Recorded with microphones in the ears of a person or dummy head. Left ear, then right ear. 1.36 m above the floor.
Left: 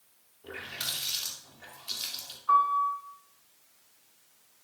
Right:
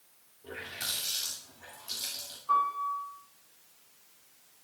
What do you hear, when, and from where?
0.4 s a running tap: 40° left (ahead or behind), 2.5 m
2.5 s a piano: 60° left (ahead or behind), 4.5 m